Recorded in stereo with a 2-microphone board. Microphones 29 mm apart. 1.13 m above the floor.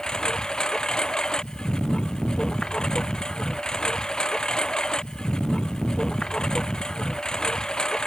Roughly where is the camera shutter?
I don't hear a camera shutter.